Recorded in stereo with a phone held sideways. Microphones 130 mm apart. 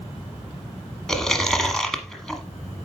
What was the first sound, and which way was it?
Chewing, 5° left (ahead or behind).